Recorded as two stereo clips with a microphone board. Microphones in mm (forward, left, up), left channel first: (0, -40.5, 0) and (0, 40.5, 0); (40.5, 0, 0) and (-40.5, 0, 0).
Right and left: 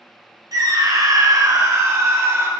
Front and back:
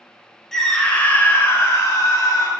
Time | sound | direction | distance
0.5 | a scream | 85° left | 1.6 m